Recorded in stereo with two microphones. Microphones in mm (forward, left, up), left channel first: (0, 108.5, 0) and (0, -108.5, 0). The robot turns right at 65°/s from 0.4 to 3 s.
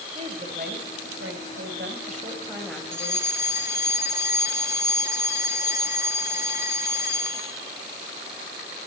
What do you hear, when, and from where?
0.1 s a woman speaking: 150° right, 3 m; by 3.3 s 20° left, 3 m
2.9 s a fire alarm: 10° right (ahead or behind), 1.7 m; by 7.5 s 15° right (ahead or behind), 1.7 m